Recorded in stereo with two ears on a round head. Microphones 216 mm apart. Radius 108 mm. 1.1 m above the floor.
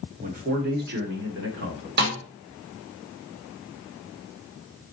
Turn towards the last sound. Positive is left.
turn(degrees=-45)  # may be behind; listen again after turning